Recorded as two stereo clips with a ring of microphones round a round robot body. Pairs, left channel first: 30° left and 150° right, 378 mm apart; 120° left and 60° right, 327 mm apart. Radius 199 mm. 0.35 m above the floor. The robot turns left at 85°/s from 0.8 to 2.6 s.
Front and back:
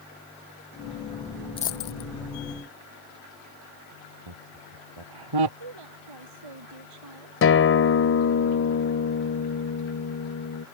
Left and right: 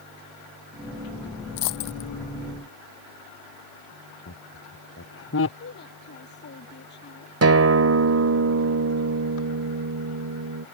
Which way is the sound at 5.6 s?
175° right.